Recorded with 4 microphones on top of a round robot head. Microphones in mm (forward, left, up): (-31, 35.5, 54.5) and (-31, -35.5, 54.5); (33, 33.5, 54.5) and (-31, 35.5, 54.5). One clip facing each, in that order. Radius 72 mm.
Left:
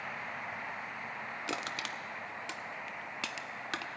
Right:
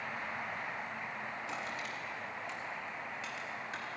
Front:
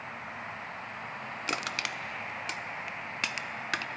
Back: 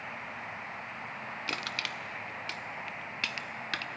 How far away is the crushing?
About 0.5 m.